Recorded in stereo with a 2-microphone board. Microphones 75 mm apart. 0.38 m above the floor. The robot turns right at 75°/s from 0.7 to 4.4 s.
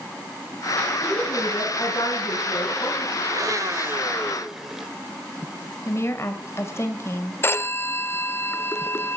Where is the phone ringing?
30° left (ahead or behind), 0.5 m.